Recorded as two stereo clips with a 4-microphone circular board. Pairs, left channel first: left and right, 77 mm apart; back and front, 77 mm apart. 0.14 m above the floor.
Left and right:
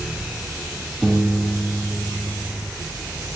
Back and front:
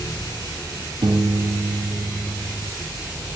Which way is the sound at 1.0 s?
Straight ahead.